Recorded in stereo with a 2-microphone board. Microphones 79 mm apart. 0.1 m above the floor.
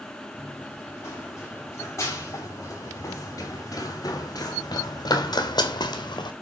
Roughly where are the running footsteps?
Left.